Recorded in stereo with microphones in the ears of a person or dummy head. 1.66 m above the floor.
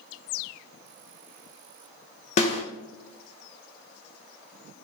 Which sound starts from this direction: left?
A snare drum, at 2.4 s.